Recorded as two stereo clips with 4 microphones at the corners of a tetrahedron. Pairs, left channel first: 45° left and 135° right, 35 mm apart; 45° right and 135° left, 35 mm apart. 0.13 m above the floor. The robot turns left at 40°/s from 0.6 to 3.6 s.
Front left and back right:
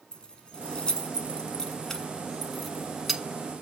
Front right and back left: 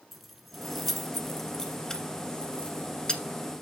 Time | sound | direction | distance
0.1 | keys jangling | 50° left | 1.2 m